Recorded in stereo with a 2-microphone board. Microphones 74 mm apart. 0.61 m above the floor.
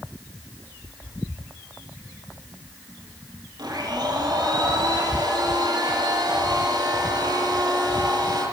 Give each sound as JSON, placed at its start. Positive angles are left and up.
{"t": 3.6, "sound": "a blender", "side_deg": -70, "distance_m": 9.0}